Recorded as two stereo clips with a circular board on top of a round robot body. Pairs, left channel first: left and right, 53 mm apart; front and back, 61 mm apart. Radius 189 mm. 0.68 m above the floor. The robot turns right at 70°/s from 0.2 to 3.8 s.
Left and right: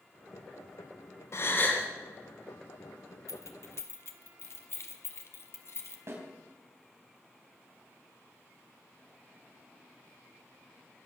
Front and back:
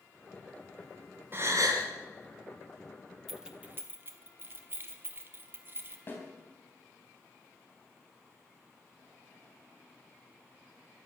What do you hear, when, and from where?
1.3 s a gasp: 125° left, 2 m; by 1.9 s 165° left, 2 m
3.3 s keys jangling: 90° left, 1.6 m; by 6.0 s 125° left, 1.6 m
6.1 s a snare drum: 55° right, 4 m